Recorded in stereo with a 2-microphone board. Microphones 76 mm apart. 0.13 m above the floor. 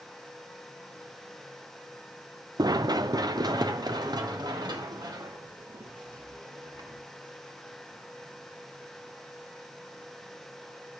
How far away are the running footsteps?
About 0.6 m.